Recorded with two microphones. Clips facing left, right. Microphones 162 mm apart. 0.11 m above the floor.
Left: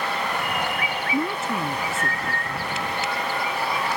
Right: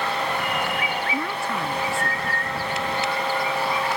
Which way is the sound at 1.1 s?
20° left (ahead or behind).